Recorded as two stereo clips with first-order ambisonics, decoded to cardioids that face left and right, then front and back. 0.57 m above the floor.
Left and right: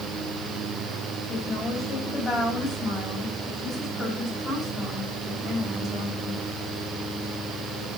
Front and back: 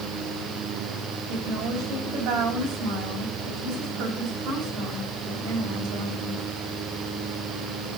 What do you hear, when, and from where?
1.3 s a woman speaking: 160° left, 4 m